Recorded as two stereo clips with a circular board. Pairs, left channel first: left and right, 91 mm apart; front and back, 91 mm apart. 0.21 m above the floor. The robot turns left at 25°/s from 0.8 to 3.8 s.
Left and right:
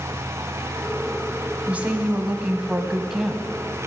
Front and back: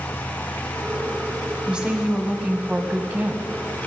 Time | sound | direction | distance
1.7 | a woman speaking | 120° right | 1.0 m